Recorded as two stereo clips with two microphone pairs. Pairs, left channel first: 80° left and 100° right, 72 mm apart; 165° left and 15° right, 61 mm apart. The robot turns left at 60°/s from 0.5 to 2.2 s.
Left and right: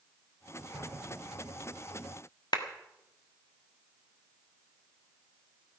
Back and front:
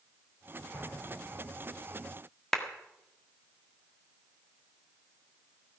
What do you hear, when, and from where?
0.7 s an explosion: 175° left, 9 m; by 1.8 s 110° left, 9 m
2.5 s a clap: 85° left, 1.6 m